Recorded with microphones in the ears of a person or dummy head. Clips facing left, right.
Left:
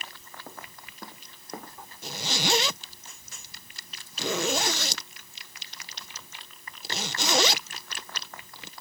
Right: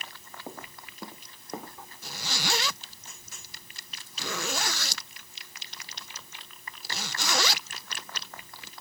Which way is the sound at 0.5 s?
15° right (ahead or behind).